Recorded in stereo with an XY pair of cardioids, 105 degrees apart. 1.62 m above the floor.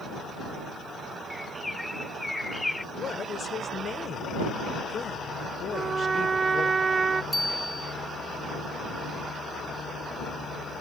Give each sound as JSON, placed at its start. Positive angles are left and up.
{"t": 1.3, "sound": "a bird", "azimuth_deg": 10}
{"t": 2.9, "sound": "a woman speaking", "azimuth_deg": 40}
{"t": 5.7, "sound": "a trumpet", "azimuth_deg": -40}
{"t": 7.3, "sound": "a bicycle bell", "azimuth_deg": 0}